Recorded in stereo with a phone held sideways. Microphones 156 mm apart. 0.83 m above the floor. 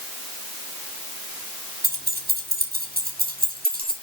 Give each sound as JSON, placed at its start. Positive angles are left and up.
{"t": 1.8, "sound": "keys jangling", "side_deg": -80, "distance_m": 1.8}